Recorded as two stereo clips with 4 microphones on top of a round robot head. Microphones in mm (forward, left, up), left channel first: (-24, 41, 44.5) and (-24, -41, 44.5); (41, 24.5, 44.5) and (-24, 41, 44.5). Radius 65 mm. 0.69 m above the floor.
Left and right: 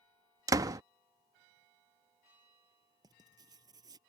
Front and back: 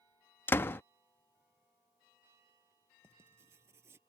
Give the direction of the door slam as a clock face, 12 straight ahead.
2 o'clock.